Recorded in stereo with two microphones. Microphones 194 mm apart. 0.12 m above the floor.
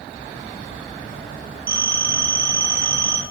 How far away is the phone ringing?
About 1.3 m.